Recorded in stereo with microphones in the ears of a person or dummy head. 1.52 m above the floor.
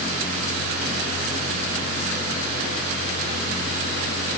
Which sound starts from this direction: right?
A fan, at 0.0 s.